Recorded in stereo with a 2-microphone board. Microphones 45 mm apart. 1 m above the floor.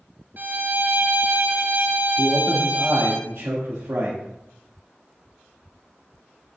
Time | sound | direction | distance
0.4 | a violin | 45° right (ahead or behind) | 1.4 m
2.2 | a man speaking | 70° right (ahead or behind) | 1.6 m